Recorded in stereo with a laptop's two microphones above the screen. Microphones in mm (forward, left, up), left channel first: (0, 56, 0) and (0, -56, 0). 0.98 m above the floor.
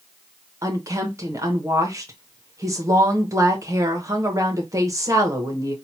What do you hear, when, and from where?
0.6 s a woman speaking: 30° right (ahead or behind), 0.8 m